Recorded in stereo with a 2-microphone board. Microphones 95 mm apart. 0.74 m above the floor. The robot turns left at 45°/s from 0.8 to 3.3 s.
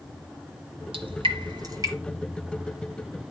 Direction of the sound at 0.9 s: 75° right (ahead or behind).